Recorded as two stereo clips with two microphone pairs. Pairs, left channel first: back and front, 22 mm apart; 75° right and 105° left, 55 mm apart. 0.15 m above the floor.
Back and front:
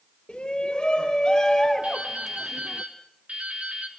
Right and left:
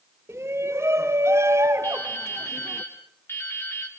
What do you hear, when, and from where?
0.3 s a shout: 140° left, 2 m; by 2.8 s 90° left, 1.9 m
1.8 s dripping: 25° right, 4.5 m